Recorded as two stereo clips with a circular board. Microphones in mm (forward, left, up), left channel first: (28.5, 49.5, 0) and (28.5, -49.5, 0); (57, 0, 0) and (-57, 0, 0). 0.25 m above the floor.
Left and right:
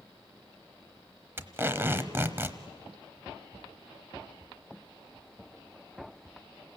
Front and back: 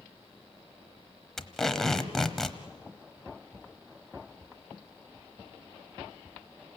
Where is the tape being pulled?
80° right, 1.1 m.